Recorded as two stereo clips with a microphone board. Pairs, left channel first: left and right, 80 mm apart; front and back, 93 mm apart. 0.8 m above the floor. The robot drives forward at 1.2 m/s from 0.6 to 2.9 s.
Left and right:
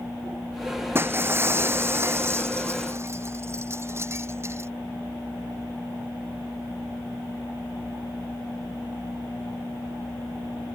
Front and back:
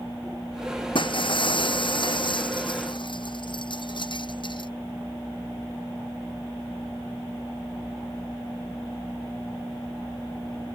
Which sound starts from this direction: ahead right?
Breaking glass, at 0.9 s.